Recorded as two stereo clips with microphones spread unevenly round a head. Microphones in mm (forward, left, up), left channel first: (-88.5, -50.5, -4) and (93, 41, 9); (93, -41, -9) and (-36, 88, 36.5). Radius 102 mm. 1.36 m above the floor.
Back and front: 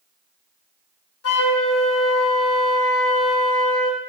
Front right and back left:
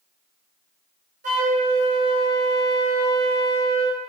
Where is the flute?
170° right, 2.5 m.